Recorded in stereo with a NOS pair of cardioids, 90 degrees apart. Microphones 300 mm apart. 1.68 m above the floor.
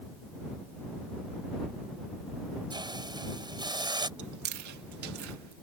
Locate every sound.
2.7 s a hiss: 15° right
4.2 s chewing: 70° right